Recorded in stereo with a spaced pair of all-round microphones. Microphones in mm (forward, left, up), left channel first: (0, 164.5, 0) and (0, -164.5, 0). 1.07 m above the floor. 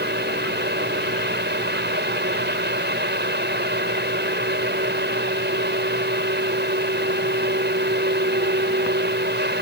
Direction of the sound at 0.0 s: 30° right (ahead or behind).